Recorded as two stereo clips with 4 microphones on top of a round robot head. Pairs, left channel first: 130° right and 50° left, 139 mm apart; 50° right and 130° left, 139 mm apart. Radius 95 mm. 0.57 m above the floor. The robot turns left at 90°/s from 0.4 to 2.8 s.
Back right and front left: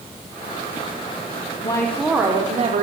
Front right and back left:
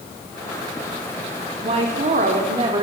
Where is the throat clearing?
No throat clearing in this recording.